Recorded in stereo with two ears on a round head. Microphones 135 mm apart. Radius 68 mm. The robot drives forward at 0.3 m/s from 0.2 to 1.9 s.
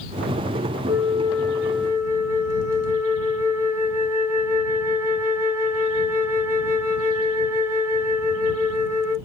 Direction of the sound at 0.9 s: 20° right (ahead or behind).